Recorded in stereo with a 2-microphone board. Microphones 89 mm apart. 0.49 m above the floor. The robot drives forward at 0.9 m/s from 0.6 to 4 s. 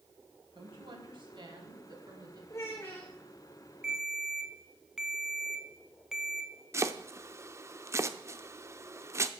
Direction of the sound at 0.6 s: 70° right (ahead or behind).